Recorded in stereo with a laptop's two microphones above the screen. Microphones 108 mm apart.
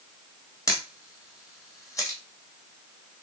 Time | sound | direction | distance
0.7 | a camera shutter | 30° left (ahead or behind) | 0.9 m